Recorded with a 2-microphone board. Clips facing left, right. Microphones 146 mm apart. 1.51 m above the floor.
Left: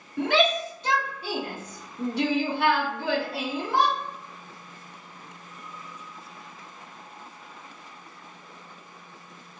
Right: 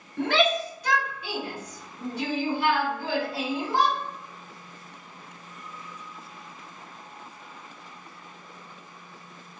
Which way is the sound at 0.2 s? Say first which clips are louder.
Left 1 dB; 10° left (ahead or behind).